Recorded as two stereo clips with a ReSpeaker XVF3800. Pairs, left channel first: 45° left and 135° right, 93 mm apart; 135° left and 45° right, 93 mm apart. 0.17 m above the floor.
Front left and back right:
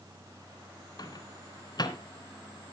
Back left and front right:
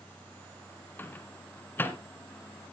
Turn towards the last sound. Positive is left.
turn(degrees=70)